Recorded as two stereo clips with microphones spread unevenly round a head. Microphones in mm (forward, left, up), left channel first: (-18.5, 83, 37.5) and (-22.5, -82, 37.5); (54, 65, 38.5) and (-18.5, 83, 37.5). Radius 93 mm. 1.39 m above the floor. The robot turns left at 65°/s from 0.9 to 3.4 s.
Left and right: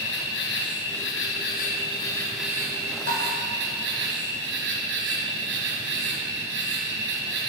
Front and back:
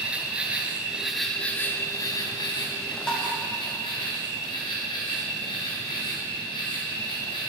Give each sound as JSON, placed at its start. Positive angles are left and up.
{"t": 0.0, "sound": "an insect", "azimuth_deg": 95, "distance_m": 2.5}
{"t": 3.1, "sound": "tapping", "azimuth_deg": 65, "distance_m": 3.0}